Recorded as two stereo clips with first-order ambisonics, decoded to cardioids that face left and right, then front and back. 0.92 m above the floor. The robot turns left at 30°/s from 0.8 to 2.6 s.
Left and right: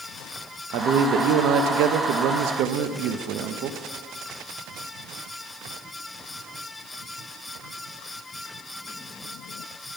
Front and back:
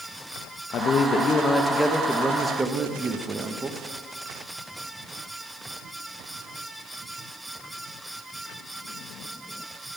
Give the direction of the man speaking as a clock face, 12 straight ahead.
2 o'clock.